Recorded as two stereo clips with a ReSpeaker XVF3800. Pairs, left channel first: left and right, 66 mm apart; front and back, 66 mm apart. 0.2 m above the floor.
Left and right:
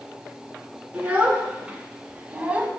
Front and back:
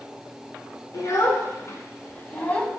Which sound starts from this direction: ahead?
A child speaking, at 0.9 s.